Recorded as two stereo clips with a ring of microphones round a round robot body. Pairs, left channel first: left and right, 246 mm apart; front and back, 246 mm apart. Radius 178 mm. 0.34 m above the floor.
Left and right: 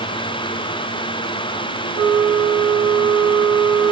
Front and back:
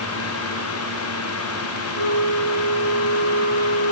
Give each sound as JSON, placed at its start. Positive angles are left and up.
{"t": 1.9, "sound": "a flute", "azimuth_deg": -65, "distance_m": 3.5}